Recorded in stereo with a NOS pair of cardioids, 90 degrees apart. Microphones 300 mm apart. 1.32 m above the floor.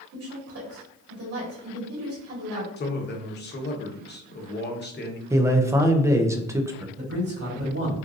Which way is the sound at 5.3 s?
10° right.